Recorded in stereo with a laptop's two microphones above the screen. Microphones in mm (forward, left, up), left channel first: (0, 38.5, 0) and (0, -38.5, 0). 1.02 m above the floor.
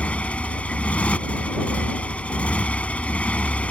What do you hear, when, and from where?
0.0 s a motorcycle: 15° left (ahead or behind)